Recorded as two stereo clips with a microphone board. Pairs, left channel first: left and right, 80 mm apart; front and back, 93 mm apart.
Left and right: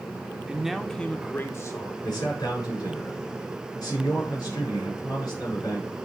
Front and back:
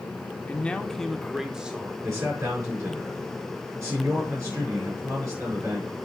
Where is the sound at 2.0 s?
125° left, 6 m.